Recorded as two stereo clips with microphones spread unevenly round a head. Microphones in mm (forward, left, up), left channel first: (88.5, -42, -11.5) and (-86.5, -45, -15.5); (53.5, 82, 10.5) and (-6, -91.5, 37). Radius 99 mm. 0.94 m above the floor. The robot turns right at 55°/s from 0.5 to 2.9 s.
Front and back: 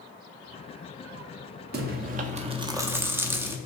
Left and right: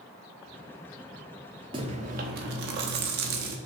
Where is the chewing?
165° right, 0.5 m; by 3.6 s 100° right, 0.5 m.